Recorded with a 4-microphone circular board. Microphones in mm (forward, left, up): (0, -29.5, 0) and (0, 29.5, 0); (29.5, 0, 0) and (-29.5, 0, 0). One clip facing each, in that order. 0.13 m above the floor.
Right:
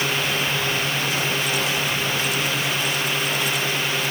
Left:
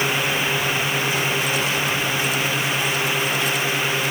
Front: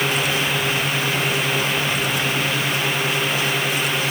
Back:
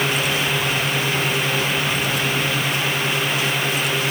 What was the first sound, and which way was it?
Only background noise.